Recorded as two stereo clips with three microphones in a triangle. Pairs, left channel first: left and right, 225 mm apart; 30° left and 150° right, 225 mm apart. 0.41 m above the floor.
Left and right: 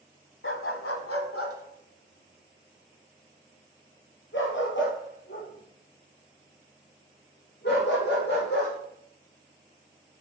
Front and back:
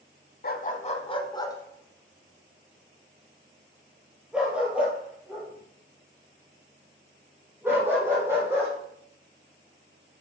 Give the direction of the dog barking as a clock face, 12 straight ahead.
10 o'clock.